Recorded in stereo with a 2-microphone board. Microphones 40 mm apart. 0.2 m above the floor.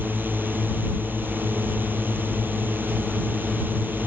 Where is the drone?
55° right (ahead or behind).